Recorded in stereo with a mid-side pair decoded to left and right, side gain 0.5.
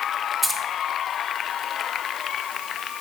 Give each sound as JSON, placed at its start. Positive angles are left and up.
{"t": 0.4, "sound": "keys jangling", "azimuth_deg": 0, "distance_m": 2.0}